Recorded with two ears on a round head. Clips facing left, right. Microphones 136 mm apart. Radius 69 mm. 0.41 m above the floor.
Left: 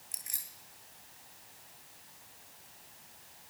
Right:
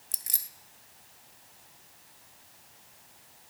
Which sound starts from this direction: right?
Keys jangling, at 0.1 s.